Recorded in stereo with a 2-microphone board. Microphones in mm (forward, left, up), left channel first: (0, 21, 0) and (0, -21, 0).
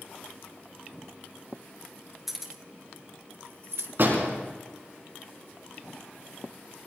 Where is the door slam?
50° right (ahead or behind), 5 m.